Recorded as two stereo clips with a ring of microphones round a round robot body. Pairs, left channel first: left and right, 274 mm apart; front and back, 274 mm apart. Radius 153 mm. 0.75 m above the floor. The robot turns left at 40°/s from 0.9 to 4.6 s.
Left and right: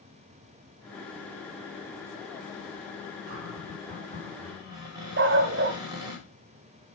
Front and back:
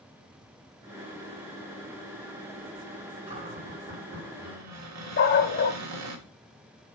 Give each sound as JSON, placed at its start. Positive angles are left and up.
{"t": 3.3, "sound": "a cupboard door", "azimuth_deg": -110, "distance_m": 2.5}
{"t": 5.2, "sound": "a dog barking", "azimuth_deg": -45, "distance_m": 1.2}